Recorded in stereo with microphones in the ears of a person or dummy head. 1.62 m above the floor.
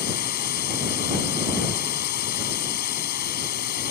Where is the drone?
50° left (ahead or behind).